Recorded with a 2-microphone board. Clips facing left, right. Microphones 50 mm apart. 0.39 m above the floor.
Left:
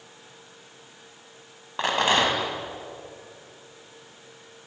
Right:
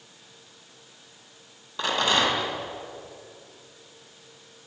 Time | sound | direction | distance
1.8 | a rattle | 35° left (ahead or behind) | 2.5 m